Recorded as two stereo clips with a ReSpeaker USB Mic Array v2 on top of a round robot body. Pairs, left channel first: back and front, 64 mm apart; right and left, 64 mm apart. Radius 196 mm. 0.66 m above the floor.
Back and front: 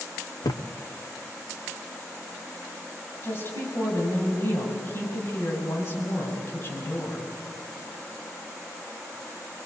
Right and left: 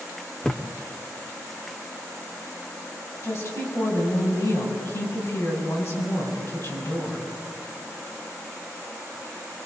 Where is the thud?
165° right, 1.0 m.